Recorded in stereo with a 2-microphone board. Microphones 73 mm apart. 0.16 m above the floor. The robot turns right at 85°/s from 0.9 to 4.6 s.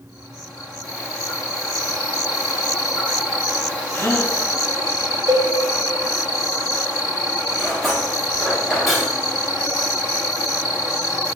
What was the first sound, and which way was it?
A gasp, 135° left.